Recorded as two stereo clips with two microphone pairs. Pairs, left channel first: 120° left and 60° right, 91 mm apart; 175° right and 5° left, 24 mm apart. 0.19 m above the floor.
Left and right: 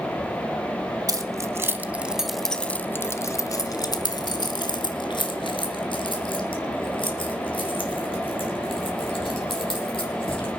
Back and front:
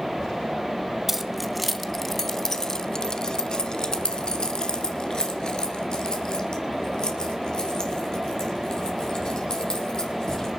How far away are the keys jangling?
About 1.0 m.